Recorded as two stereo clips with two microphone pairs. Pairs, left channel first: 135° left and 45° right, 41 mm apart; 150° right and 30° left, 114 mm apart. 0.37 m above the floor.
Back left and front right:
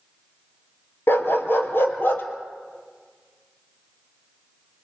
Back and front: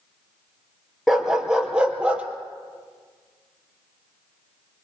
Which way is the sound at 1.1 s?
115° left.